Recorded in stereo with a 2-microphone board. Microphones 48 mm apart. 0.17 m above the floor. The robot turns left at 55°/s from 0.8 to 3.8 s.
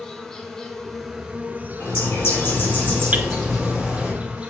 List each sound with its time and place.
0.0 s an insect: 15° left, 1.2 m; by 4.5 s 150° right, 1.2 m
1.8 s a bird: 90° left, 3 m; by 4.1 s 20° right, 3 m
3.1 s hammering: 35° right (ahead or behind), 0.6 m; by 3.3 s 45° right (ahead or behind), 0.6 m